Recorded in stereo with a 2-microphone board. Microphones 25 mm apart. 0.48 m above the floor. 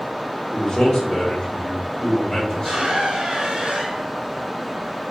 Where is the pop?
I don't hear a pop.